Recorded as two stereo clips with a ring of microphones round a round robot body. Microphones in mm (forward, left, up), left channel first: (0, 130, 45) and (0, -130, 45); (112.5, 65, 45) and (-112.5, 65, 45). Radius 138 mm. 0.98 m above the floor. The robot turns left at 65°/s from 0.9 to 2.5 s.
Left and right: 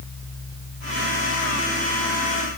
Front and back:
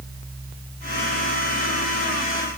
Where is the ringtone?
I don't hear a ringtone.